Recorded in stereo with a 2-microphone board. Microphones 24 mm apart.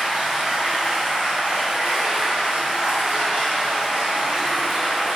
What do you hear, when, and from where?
0.0 s running water: 60° right (ahead or behind), 1.3 m